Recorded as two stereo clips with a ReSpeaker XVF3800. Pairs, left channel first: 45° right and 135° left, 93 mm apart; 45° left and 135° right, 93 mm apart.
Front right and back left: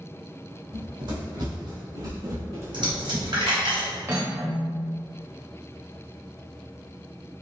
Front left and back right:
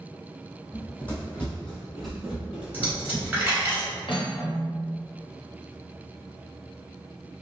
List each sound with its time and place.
0.7 s running footsteps: 115° left, 1.8 m; by 3.7 s 130° right, 1.1 m
2.7 s a dropped coin: 155° left, 1.7 m
4.1 s cutlery clinking: 75° left, 0.7 m